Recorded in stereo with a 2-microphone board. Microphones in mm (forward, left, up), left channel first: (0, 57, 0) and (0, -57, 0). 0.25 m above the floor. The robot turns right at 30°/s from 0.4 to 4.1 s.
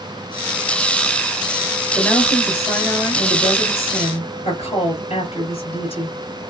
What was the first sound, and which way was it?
A woman speaking, straight ahead.